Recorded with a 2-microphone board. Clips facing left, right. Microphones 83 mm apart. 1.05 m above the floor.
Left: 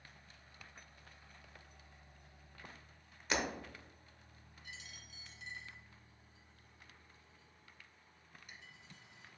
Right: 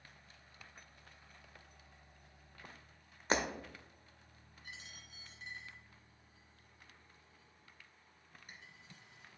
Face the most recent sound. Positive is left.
turn(degrees=-45)  # may be behind; listen again after turning